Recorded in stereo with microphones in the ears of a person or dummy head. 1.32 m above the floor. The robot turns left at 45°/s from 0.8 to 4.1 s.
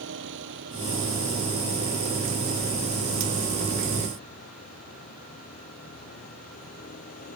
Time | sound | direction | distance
0.0 | a vehicle | 75° right | ?